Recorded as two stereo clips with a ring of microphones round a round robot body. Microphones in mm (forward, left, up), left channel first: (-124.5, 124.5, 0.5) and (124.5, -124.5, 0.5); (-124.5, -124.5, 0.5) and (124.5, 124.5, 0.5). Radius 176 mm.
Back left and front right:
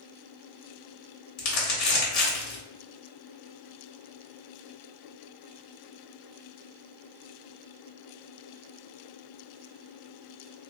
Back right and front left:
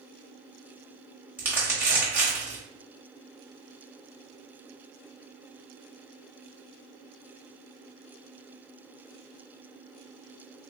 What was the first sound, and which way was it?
Crumpling, 130° left.